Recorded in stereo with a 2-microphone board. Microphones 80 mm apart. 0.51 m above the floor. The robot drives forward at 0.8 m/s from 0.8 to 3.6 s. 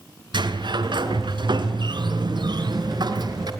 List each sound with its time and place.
0.3 s a sliding door: 85° right, 3.5 m; by 3.5 s 55° right (ahead or behind), 4 m